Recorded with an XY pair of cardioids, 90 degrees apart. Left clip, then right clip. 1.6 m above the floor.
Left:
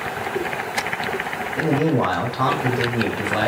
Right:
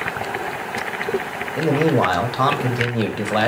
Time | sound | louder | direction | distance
1.6 | a man speaking | right 3 dB | 45° right | 0.9 m